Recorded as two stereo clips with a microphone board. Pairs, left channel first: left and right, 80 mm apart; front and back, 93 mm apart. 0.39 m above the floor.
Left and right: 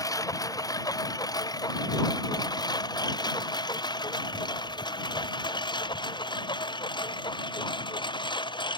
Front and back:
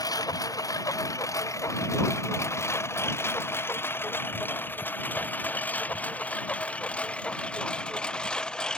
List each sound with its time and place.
0.0 s a lawn mower: 50° left; by 8.8 s 80° left